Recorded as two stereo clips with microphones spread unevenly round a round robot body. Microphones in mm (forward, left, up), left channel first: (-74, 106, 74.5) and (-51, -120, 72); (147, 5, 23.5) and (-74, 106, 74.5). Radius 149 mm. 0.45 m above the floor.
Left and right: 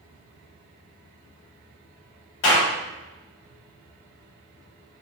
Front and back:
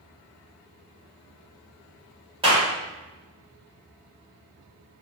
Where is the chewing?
No chewing in this recording.